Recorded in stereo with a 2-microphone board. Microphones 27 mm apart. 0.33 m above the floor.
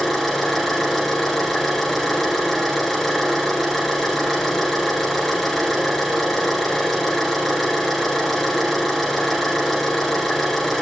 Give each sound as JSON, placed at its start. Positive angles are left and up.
{"t": 0.0, "sound": "an engine running", "side_deg": 5, "distance_m": 9.5}